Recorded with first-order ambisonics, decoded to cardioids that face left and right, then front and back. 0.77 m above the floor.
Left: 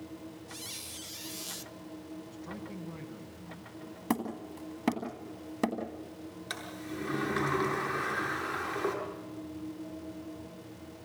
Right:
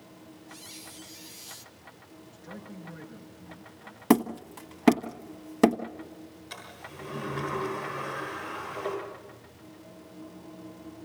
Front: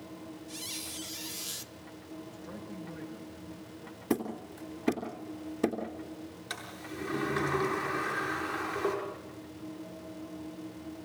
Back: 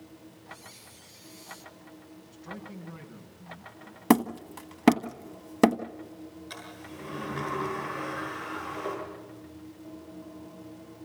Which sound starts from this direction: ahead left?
A squeak, at 0.5 s.